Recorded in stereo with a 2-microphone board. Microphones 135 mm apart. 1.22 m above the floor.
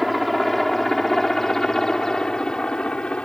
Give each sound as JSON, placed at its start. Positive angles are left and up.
{"t": 0.0, "sound": "a helicopter", "side_deg": 0}